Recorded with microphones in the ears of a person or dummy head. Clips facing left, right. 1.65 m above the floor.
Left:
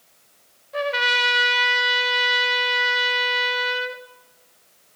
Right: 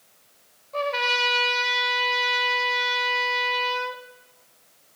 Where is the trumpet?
15° left (ahead or behind), 0.6 m.